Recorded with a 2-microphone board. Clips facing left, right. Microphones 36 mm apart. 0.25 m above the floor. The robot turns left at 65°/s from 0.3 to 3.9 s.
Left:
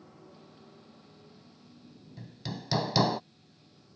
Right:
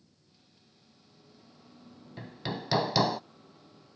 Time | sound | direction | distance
0.0 | a motorcycle | 75° left | ?
2.2 | hammering | 120° right | ?